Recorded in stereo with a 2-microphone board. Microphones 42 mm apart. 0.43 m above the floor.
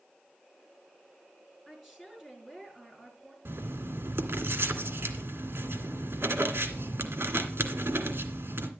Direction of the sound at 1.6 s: 5° right (ahead or behind).